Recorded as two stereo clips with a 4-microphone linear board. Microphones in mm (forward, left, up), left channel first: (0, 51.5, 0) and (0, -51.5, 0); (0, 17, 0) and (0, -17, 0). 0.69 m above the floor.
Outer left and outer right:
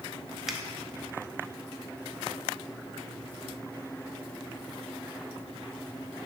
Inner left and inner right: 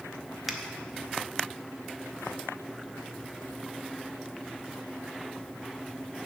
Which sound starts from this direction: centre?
A finger snap, at 0.5 s.